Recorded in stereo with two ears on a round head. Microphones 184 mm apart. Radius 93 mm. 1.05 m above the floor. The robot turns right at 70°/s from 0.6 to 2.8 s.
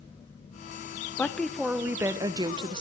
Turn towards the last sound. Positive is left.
turn(degrees=-25)  # may be behind; listen again after turning